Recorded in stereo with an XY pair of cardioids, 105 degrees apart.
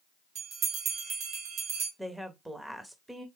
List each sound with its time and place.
0.3 s a bell: 65° right, 2 m
2.0 s a woman speaking: 10° right, 1.2 m